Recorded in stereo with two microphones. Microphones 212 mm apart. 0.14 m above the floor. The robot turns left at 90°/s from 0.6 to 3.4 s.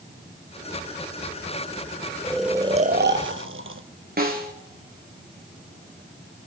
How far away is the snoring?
About 1.0 m.